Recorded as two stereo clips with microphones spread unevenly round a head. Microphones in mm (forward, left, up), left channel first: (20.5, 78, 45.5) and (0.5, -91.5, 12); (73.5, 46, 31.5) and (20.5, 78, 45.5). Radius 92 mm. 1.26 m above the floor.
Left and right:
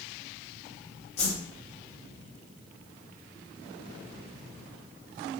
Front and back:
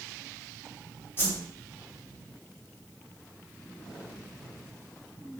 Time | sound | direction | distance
1.2 | a whoosh | 25° left | 5 m